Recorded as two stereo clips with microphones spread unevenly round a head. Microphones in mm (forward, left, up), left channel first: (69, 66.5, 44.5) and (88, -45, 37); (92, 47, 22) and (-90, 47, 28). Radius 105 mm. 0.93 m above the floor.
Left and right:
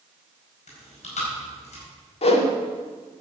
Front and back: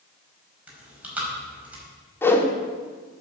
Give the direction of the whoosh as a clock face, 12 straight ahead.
9 o'clock.